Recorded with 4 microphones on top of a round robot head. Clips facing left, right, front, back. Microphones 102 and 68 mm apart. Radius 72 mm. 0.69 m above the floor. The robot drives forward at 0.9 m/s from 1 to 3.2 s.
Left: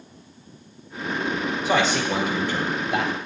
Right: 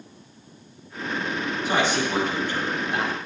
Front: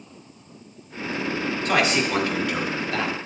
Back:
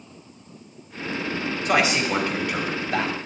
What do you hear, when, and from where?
1.6 s a man speaking: 105° left, 3 m; by 3.1 s 125° left, 4 m